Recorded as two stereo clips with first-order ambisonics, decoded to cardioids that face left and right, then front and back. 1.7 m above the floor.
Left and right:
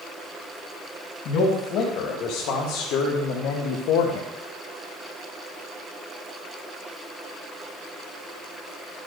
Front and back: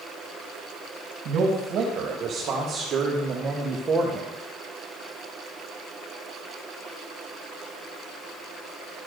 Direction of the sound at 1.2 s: 130° left.